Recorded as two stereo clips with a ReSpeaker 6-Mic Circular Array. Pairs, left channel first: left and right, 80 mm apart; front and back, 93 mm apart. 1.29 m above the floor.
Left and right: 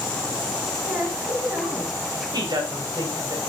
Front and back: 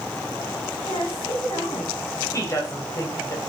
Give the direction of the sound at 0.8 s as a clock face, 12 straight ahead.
1 o'clock.